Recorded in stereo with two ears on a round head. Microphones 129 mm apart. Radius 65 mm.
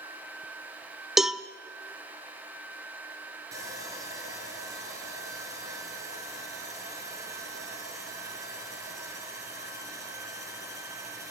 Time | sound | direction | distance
1.2 | a cowbell | centre (ahead or behind) | 0.6 m
3.5 | sawing | 25° right (ahead or behind) | 4.5 m